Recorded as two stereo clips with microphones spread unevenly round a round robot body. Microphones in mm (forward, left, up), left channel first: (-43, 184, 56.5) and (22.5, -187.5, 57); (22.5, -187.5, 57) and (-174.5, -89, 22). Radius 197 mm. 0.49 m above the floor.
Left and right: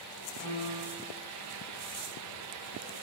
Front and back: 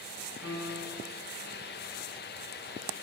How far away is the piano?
About 3.5 m.